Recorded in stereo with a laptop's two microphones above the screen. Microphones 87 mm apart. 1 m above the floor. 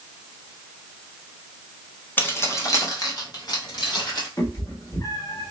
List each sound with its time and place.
2.2 s keys jangling: 20° left (ahead or behind), 0.8 m; by 4.3 s 60° left (ahead or behind), 2 m
4.4 s a cat meowing: 40° left (ahead or behind), 1.3 m